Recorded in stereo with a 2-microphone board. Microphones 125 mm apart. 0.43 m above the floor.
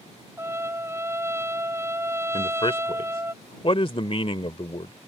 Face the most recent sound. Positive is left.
turn(degrees=45)  # may be behind; listen again after turning